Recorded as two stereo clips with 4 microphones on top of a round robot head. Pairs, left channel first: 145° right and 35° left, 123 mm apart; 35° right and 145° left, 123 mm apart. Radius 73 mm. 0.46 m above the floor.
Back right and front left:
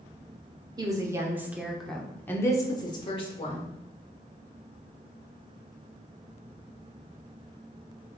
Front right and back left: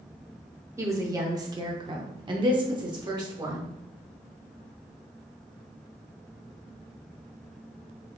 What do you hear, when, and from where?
0.8 s a woman speaking: 85° left, 1.1 m; by 3.7 s 165° right, 1.3 m